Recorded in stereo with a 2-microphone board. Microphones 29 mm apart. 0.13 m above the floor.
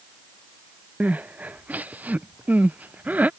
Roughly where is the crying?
Right.